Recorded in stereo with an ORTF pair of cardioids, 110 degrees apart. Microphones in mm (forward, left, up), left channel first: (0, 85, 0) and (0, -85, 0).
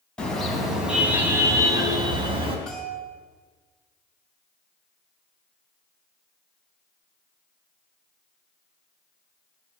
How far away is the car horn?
About 4 m.